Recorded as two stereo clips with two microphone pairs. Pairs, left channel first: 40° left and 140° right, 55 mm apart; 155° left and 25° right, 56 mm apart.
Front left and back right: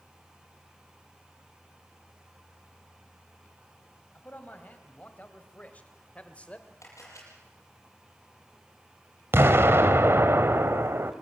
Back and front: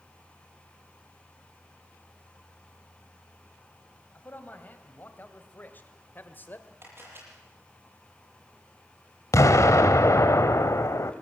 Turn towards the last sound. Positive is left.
turn(degrees=180)